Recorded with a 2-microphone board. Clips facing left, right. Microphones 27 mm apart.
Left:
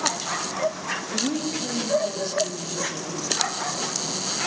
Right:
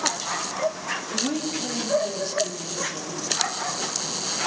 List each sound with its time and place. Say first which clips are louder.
1.1 s a woman speaking: left 1 dB; 5° right (ahead or behind), 1.5 m; by 3.2 s 5° left (ahead or behind), 3 m